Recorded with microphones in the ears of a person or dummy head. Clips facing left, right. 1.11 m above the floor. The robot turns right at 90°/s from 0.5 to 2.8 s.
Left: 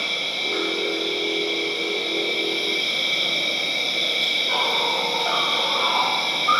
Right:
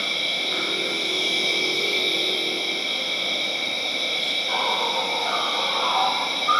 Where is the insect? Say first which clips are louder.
Even; 170° right, 1.3 m; by 6.6 s 35° left, 1.3 m.